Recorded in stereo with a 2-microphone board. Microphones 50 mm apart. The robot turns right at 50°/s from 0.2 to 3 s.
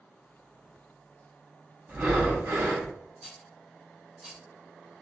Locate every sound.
1.9 s breathing: 140° right, 1.2 m; by 2.9 s 90° right, 1.2 m
3.2 s a rattle: 20° right (ahead or behind), 2.5 m